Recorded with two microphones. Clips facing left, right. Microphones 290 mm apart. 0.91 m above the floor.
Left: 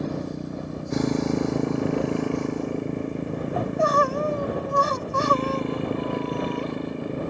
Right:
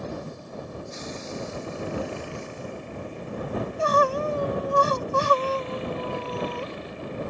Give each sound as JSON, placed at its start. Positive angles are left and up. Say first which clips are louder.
{"t": 0.0, "sound": "a motorcycle", "louder": "left 7 dB", "side_deg": 70}
{"t": 3.6, "sound": "crying", "louder": "even", "side_deg": -40}